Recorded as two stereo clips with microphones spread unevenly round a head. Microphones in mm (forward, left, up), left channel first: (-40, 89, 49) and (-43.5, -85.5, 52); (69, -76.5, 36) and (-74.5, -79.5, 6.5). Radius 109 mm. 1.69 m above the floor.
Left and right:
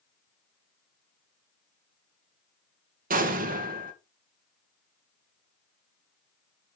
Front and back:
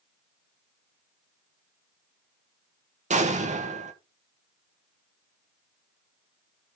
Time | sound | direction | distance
3.1 | an explosion | 135° right | 1.7 m